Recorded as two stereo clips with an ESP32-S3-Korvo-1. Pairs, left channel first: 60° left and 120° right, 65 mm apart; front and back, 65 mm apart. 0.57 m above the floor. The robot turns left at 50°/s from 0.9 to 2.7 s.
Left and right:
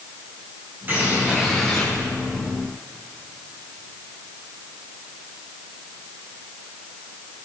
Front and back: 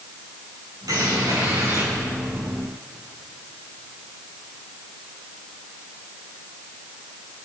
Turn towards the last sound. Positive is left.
turn(degrees=95)